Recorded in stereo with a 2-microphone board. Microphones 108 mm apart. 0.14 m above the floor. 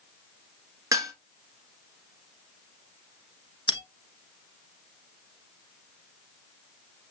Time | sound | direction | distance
0.9 | dishes clattering | 30° right (ahead or behind) | 1.3 m
3.7 | a bell | 50° left (ahead or behind) | 1.1 m